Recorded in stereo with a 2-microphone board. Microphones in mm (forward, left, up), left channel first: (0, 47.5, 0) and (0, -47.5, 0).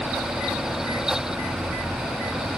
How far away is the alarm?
No alarm in this recording.